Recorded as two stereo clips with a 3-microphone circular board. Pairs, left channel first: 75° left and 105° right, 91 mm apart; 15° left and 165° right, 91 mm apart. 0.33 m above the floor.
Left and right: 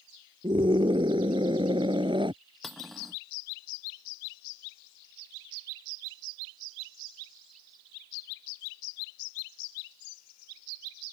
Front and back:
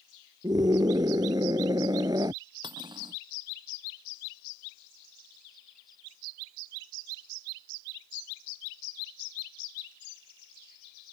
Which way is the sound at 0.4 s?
125° right.